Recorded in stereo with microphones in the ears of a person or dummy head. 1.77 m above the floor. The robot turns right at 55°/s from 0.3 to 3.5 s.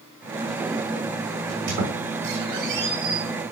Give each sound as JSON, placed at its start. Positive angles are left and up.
{"t": 1.5, "sound": "a squeak", "side_deg": -55, "distance_m": 4.5}